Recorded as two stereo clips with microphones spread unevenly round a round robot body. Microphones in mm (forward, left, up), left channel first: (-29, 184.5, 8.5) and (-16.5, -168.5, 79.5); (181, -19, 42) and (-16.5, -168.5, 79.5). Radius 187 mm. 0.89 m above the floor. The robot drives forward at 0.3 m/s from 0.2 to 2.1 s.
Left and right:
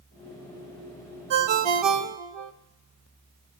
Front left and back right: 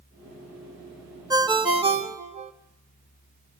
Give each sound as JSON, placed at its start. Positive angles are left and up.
{"t": 1.3, "sound": "a ringtone", "azimuth_deg": -65, "distance_m": 1.3}